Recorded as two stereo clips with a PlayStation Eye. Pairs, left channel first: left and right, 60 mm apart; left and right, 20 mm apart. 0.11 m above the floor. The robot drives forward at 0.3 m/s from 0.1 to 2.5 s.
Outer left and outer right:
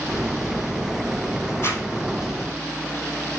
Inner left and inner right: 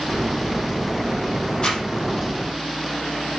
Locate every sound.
1.6 s a zipper: 45° left (ahead or behind), 4.5 m